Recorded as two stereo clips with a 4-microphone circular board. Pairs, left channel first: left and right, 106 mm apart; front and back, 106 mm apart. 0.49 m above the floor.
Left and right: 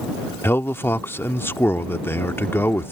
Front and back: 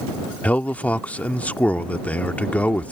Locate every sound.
0.4 s a man speaking: 55° left